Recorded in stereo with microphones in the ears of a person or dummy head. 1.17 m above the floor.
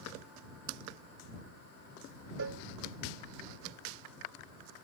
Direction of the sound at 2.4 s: 75° right (ahead or behind).